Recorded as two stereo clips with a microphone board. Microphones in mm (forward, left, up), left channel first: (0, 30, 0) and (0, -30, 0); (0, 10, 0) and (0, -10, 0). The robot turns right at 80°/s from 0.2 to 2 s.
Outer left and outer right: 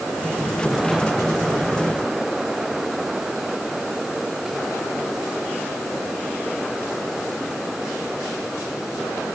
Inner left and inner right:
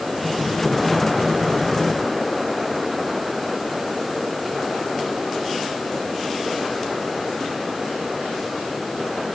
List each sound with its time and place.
Only background noise.